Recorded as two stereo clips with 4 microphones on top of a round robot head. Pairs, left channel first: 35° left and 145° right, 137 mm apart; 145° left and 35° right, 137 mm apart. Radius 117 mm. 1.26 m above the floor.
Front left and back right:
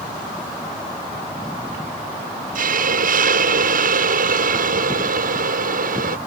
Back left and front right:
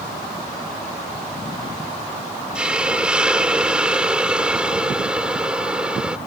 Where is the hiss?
120° right.